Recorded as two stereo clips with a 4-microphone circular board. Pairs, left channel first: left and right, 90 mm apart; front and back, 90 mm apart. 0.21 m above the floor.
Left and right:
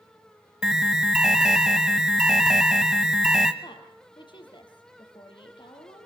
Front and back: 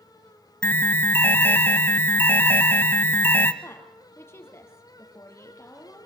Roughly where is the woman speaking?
Ahead left.